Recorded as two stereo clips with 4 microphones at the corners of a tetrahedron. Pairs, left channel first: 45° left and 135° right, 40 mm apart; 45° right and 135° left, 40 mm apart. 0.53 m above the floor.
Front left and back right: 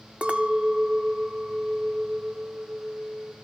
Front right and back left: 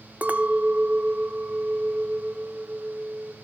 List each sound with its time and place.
0.2 s a clink: 175° left, 0.6 m